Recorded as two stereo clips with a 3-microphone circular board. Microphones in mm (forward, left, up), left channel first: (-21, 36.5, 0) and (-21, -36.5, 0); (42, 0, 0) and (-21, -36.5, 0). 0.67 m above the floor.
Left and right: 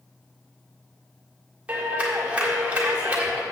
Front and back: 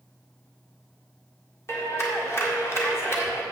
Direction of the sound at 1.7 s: 20° right.